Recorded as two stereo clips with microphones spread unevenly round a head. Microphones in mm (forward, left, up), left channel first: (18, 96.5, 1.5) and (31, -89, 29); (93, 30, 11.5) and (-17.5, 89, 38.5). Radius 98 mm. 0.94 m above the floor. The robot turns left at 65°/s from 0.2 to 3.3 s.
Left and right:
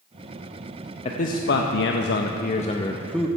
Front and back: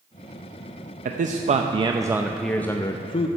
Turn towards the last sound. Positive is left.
turn(degrees=0)